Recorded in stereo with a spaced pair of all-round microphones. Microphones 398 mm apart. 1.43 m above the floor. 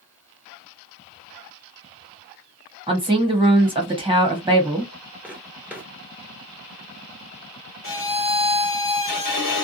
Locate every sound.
2.9 s a woman speaking: 15° right (ahead or behind), 1.2 m
5.2 s footsteps: 5° right (ahead or behind), 1.4 m
7.8 s a violin: 55° left (ahead or behind), 0.7 m